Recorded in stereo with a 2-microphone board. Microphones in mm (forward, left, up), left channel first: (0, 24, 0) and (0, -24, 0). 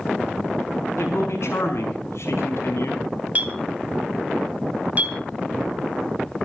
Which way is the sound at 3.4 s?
35° right (ahead or behind).